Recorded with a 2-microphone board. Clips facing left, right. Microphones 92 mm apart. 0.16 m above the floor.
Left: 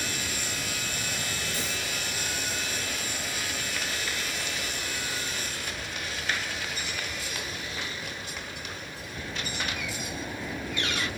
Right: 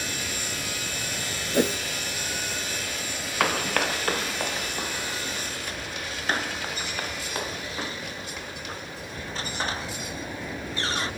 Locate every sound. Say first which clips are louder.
0.0 s an aircraft: right 1 dB; centre (ahead or behind)
1.5 s a whoosh: right 11 dB; 60° right (ahead or behind)
3.4 s running footsteps: right 10 dB; 75° right (ahead or behind); by 11.1 s 30° right (ahead or behind)